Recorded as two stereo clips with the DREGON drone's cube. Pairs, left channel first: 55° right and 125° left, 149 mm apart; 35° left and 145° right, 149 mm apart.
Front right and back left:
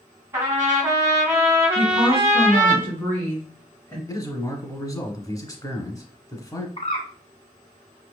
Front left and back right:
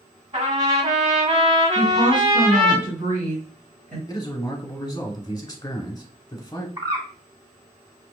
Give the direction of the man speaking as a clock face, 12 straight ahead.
12 o'clock.